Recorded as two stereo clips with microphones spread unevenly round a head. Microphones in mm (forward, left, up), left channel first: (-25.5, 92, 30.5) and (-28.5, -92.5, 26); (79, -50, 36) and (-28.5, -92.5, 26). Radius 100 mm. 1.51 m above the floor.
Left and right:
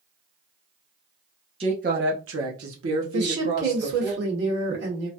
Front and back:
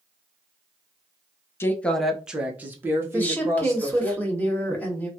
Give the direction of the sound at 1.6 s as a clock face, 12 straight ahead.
1 o'clock.